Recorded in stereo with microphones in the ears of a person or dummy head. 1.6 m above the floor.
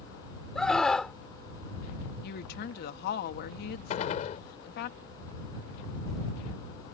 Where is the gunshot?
45° left (ahead or behind).